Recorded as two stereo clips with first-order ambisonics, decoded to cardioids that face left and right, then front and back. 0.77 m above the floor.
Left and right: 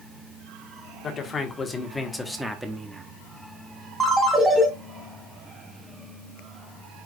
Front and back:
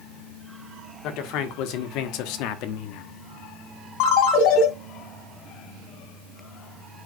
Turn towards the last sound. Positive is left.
turn(degrees=-5)